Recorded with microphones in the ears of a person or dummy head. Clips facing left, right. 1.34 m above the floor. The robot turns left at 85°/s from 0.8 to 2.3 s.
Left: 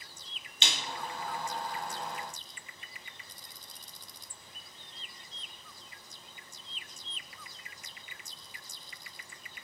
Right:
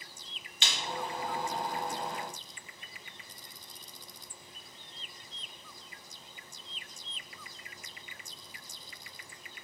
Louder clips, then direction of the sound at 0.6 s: Left 1 dB; 20° left (ahead or behind).